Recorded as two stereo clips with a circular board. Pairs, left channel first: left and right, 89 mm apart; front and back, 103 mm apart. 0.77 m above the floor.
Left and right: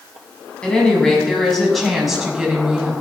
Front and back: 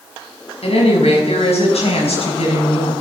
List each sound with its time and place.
0.6 s a woman speaking: 10° left, 7 m; by 2.9 s 10° right, 6.5 m